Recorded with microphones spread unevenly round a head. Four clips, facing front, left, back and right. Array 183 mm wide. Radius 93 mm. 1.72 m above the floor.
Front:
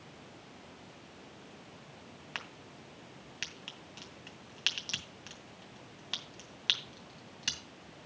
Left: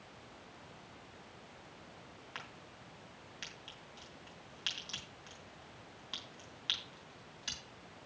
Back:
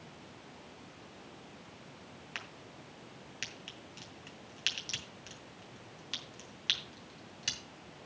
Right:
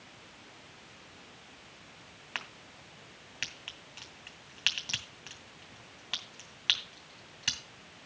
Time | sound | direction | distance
2.4 | a crack | 50° right | 2.5 m